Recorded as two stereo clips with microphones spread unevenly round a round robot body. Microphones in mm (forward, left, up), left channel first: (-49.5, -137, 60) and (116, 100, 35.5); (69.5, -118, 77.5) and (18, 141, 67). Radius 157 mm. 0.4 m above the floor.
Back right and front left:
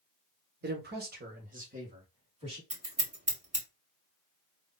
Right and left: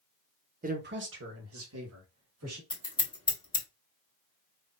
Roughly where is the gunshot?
I don't hear a gunshot.